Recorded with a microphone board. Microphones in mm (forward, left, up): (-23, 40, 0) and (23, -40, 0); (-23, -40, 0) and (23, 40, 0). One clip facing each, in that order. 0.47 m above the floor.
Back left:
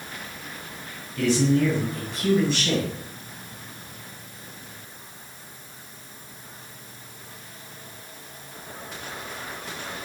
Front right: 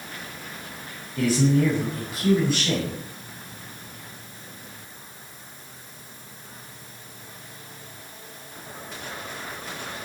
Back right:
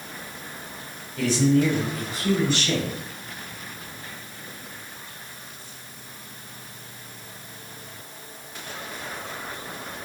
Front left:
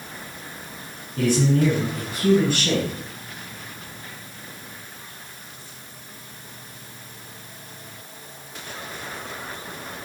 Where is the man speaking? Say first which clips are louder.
Even, even; 20° left, 4.5 m; by 2.9 s 30° left, 4 m.